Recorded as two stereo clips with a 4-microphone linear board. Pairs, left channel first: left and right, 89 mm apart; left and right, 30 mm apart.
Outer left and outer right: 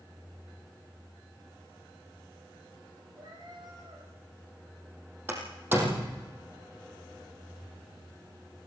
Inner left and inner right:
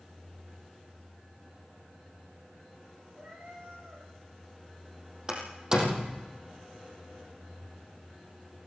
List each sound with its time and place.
3.1 s a cat meowing: 60° right (ahead or behind), 8 m
5.3 s a door slam: 25° right (ahead or behind), 4.5 m